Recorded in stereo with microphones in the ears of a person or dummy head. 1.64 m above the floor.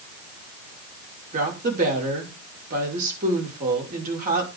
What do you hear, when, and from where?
1.3 s a woman speaking: 40° right (ahead or behind), 5.5 m